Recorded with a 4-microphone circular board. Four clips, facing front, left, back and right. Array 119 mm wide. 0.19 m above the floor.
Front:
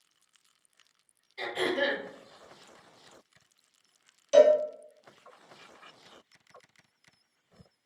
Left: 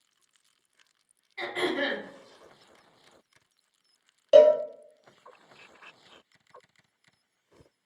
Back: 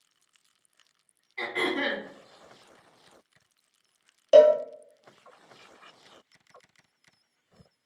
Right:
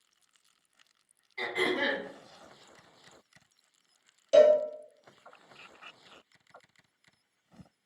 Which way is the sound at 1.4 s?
170° left.